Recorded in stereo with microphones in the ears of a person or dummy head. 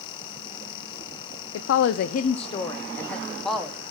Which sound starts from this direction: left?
A woman speaking, at 1.5 s.